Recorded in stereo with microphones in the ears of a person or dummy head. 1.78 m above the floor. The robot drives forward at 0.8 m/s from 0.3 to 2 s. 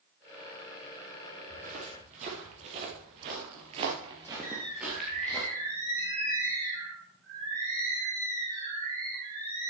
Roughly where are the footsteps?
Right.